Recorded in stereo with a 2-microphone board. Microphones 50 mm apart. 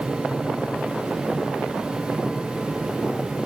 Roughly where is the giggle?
I don't hear a giggle.